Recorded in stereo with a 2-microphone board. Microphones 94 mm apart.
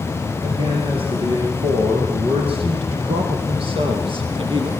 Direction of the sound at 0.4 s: 70° right (ahead or behind).